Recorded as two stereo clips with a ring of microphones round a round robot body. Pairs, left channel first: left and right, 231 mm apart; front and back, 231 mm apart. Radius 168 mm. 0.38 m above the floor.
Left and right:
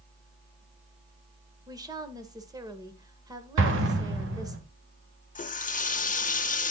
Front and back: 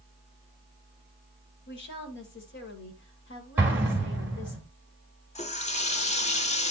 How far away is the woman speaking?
About 1.7 m.